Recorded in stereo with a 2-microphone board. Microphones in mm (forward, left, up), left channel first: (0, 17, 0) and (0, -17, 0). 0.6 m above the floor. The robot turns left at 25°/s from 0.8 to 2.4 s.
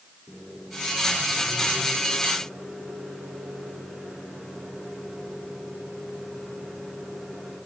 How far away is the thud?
I don't hear a thud.